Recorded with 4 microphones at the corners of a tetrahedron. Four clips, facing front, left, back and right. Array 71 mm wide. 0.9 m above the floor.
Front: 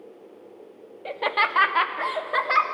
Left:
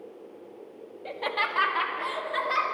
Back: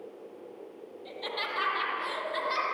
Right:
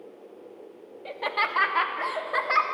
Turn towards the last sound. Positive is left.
turn(degrees=-30)